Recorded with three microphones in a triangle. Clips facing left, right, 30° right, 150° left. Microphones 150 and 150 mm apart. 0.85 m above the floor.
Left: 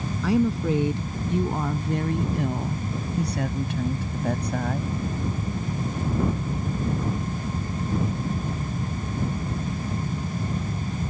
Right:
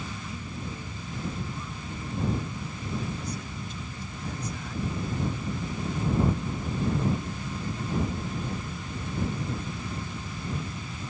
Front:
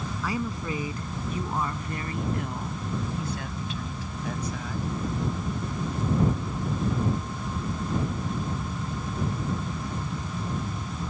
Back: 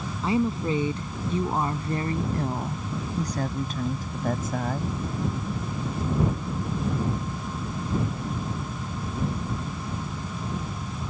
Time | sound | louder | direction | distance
0.2 | a woman speaking | left 16 dB, back 7 dB | 85° left | ?